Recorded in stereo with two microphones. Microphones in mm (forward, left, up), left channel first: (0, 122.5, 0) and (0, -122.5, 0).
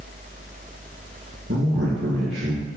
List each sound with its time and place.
1.5 s a man speaking: 50° right (ahead or behind), 3 m